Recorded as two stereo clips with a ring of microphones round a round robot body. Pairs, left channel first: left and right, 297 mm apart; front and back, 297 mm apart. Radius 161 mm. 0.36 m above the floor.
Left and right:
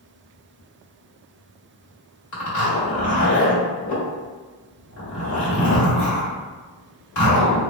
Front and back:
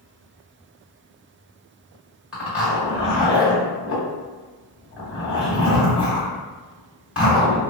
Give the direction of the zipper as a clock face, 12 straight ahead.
9 o'clock.